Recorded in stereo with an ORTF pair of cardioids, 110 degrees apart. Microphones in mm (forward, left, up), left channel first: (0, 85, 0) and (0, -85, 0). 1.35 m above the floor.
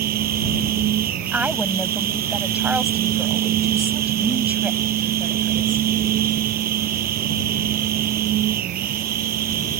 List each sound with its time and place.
0.0 s a machine running: 65° right
1.3 s a woman speaking: 10° right